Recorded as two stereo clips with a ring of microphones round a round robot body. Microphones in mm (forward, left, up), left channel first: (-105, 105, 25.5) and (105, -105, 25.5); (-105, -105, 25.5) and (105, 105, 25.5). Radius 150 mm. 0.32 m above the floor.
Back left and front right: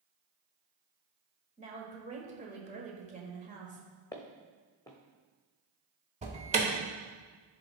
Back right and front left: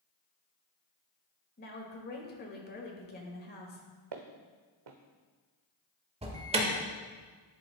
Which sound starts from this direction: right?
A woman speaking, at 1.6 s.